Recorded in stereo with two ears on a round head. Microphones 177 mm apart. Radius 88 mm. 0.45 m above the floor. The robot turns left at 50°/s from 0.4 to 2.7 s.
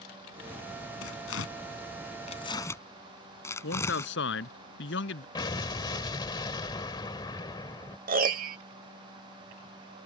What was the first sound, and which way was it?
Tearing paper, 75° left (ahead or behind).